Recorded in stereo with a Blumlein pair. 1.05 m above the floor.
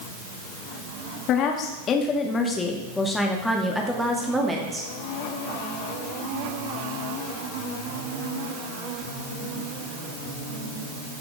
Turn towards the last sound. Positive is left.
turn(degrees=-15)